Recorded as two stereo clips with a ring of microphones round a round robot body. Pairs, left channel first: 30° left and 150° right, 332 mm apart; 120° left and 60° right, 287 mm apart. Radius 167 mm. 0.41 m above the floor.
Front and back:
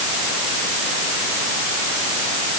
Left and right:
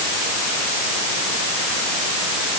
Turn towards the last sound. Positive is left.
No sound to turn to.